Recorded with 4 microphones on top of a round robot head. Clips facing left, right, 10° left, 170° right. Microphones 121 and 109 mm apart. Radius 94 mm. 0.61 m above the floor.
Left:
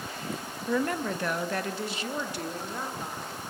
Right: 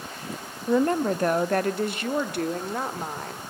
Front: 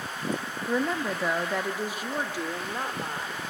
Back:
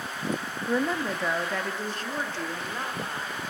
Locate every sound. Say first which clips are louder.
0.7 s a woman speaking: right 7 dB, back 1 dB; 90° right, 0.7 m; by 3.4 s 70° right, 2 m